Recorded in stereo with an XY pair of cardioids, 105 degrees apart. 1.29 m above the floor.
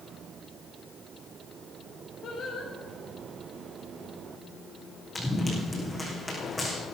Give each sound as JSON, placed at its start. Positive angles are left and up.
{"t": 2.2, "sound": "singing", "azimuth_deg": 60, "distance_m": 4.5}
{"t": 5.2, "sound": "running footsteps", "azimuth_deg": 10, "distance_m": 4.5}